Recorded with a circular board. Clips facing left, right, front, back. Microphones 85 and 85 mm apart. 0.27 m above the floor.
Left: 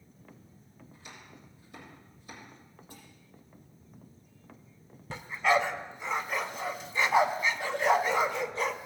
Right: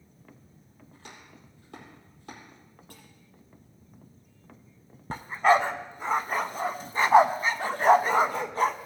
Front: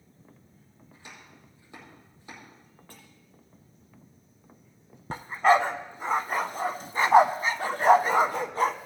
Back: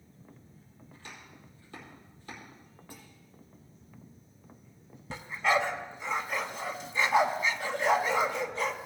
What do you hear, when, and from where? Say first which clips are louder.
0.9 s chopping: right 2 dB, even; 75° right, 4.5 m
2.9 s dishes clattering: even, back 2 dB; 100° right, 6 m
5.1 s a dog barking: right 5 dB, front 7 dB; 45° right, 0.6 m